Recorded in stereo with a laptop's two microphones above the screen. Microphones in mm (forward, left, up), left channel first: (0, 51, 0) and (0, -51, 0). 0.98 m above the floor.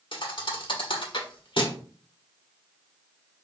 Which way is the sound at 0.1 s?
55° left (ahead or behind).